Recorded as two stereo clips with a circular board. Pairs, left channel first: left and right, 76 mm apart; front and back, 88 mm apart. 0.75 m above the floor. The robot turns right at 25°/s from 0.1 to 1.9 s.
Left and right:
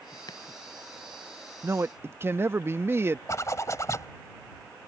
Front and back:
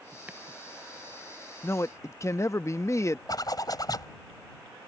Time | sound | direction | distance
0.3 | chopping | 105° left | ?
1.6 | a man speaking | 50° right | ?
3.3 | a zipper | 40° left | ?